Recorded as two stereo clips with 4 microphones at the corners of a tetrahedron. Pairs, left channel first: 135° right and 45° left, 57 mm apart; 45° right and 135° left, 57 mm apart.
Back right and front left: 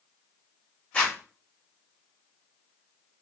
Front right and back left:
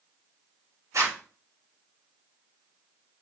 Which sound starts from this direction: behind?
A zipper, at 0.9 s.